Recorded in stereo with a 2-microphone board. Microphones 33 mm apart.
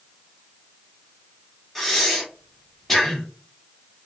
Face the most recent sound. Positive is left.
turn(degrees=10)  # may be behind; listen again after turning